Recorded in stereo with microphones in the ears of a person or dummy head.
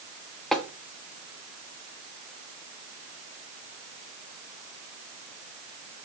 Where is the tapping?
Centre (ahead or behind), 1.2 m.